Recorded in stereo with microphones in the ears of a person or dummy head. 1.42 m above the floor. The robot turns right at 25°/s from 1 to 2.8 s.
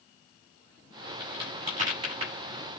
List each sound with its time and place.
1.2 s a crack: 30° right (ahead or behind), 8 m; by 2.3 s 55° right (ahead or behind), 8 m